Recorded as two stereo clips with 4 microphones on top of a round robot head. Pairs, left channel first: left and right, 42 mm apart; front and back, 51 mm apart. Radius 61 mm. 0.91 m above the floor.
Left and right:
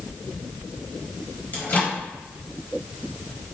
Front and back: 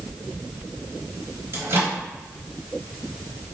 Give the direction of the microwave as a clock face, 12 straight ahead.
7 o'clock.